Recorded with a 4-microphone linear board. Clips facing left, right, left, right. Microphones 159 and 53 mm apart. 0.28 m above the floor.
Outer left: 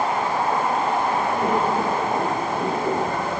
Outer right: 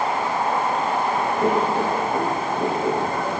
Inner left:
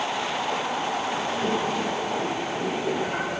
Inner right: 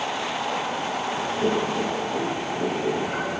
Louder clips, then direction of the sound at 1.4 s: Outer right 3 dB, inner right 4 dB; 25° right (ahead or behind).